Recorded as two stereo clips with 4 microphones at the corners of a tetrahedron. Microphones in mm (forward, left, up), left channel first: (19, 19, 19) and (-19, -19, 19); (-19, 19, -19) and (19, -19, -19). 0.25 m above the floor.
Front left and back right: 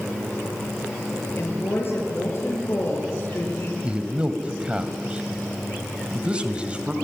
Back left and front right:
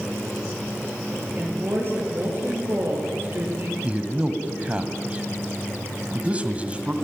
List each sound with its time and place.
1.4 s a woman speaking: 5° left, 6 m
3.8 s a man speaking: 85° right, 1.7 m